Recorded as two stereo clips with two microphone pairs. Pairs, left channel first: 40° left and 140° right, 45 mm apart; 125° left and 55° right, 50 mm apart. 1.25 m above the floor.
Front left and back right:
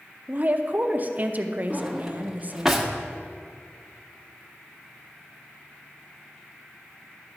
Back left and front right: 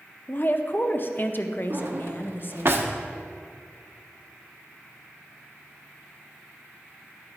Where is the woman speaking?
170° left, 0.7 m.